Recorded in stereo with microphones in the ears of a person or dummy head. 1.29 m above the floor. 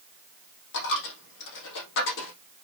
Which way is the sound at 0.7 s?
60° left (ahead or behind).